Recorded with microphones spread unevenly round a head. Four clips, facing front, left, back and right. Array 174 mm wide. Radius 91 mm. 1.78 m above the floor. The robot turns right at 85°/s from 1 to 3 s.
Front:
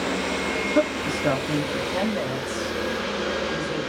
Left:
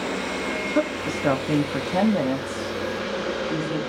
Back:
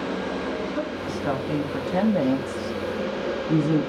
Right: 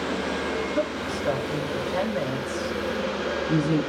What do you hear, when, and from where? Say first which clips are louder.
0.8 s a woman speaking: left 3 dB, front 6 dB; 40° left, 3 m; by 3.9 s 150° right, 3 m